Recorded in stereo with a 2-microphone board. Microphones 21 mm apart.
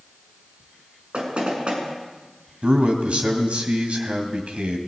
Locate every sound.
1.1 s knocking: 55° right (ahead or behind), 6.5 m
2.6 s a man speaking: 65° right (ahead or behind), 3 m